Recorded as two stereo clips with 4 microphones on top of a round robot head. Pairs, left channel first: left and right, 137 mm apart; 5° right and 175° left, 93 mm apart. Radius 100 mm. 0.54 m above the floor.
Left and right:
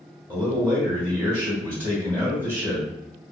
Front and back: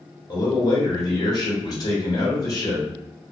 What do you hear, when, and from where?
0.3 s a man speaking: 15° left, 1.6 m